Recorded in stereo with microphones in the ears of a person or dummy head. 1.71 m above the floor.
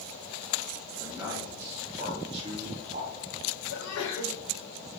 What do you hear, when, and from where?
1.0 s a man speaking: centre (ahead or behind), 1.4 m; by 3.1 s 50° right (ahead or behind), 0.7 m
3.7 s a sneeze: 65° left (ahead or behind), 1.1 m